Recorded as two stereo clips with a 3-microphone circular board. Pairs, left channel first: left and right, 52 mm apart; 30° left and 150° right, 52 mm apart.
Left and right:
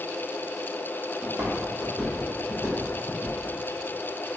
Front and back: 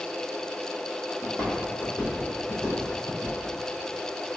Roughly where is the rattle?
No rattle in this recording.